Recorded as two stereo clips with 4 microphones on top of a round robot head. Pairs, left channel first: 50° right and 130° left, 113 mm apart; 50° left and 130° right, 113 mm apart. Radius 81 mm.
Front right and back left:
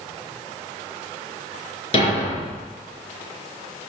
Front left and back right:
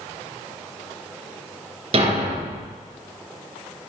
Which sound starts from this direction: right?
A thud, at 1.9 s.